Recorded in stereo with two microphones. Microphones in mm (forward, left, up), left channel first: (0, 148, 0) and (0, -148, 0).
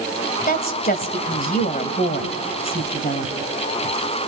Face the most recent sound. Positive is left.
turn(degrees=30)  # may be behind; listen again after turning